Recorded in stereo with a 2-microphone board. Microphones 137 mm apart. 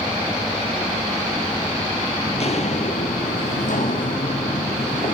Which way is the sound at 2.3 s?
45° left (ahead or behind).